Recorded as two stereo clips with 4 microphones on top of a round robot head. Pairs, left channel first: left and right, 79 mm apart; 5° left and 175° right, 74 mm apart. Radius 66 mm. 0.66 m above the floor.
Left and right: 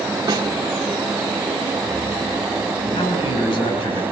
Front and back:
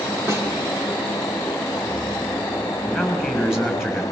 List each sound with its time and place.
0.3 s a snare drum: 115° right, 2 m
2.9 s a man speaking: 105° left, 7 m